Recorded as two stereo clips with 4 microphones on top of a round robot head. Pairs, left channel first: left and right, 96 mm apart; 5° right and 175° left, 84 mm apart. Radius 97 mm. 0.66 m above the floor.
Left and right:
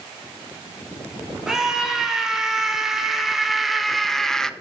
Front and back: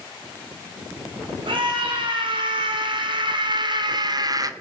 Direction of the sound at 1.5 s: 175° right.